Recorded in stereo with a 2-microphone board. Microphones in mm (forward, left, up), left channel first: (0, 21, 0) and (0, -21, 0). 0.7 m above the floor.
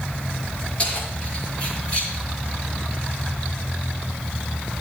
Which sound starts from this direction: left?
Keys jangling, at 0.8 s.